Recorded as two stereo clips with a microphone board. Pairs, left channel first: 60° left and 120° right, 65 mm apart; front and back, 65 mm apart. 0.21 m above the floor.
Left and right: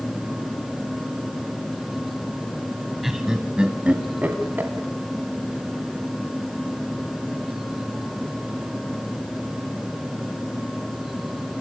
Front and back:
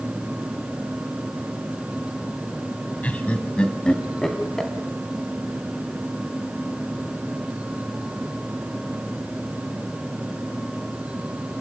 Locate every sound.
3.0 s laughter: 40° right, 1.4 m; by 4.7 s 85° right, 1.8 m